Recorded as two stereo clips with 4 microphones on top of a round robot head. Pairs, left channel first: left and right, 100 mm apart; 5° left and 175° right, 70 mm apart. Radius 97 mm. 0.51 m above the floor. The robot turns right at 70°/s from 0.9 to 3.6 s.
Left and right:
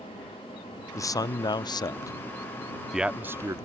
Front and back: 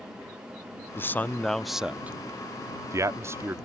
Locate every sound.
0.9 s a man speaking: 45° left; by 3.6 s 130° right